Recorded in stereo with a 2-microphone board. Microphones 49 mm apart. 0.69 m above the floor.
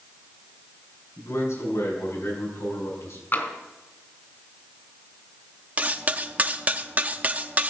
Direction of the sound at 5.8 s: 30° right (ahead or behind).